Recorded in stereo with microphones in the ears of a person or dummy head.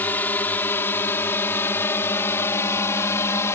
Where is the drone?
10° left (ahead or behind); by 3.6 s 15° left (ahead or behind).